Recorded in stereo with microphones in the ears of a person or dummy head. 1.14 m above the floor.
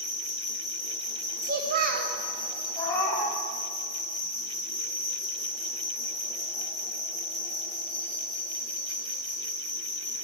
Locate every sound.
0.0 s an insect: 5° right (ahead or behind), 2 m
1.4 s a child speaking: 50° right (ahead or behind), 1.1 m
2.8 s a cat meowing: 10° left (ahead or behind), 1.0 m